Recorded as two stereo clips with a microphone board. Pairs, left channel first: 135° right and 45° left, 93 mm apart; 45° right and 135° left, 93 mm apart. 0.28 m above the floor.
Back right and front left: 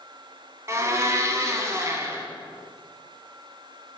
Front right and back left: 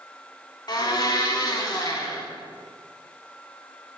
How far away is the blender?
About 0.9 m.